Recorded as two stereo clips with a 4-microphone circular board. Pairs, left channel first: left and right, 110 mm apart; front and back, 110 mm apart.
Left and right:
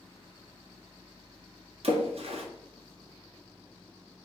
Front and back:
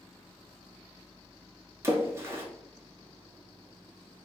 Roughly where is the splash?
Behind right.